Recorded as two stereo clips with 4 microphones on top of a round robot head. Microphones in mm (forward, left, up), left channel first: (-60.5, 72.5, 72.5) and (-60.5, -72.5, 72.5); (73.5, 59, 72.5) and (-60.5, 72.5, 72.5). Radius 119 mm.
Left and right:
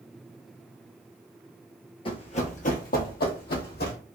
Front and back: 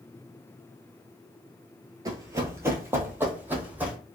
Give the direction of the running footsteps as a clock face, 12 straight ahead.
8 o'clock.